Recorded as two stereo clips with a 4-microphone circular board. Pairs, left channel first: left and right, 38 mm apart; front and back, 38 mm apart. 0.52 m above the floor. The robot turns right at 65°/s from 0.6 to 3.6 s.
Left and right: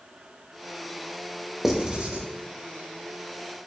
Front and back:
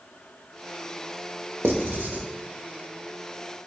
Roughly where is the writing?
Behind.